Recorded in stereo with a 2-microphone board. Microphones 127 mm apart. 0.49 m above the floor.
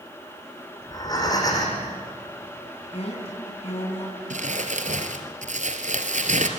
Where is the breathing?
30° left (ahead or behind), 7 m.